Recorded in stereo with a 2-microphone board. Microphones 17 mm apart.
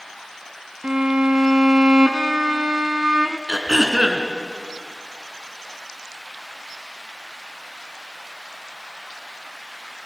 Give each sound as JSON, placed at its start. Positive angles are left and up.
{"t": 0.8, "sound": "a violin", "side_deg": -50, "distance_m": 1.0}
{"t": 3.5, "sound": "throat clearing", "side_deg": -40, "distance_m": 2.5}